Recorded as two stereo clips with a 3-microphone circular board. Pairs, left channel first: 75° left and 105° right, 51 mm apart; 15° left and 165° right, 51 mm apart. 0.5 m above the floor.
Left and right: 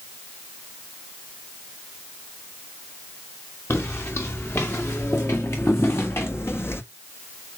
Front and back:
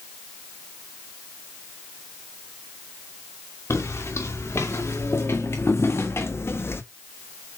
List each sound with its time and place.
3.7 s footsteps: 40° left, 3 m; by 6.8 s 45° left, 1.1 m